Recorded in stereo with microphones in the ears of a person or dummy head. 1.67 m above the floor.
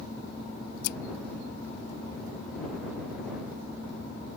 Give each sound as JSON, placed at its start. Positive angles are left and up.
{"t": 0.8, "sound": "scissors", "side_deg": 55}